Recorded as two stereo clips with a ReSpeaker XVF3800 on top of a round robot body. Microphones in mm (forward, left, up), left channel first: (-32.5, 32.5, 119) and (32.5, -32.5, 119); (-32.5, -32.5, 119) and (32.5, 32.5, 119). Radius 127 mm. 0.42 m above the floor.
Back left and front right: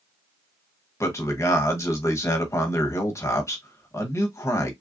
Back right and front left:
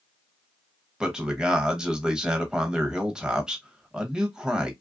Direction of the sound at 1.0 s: 120° left.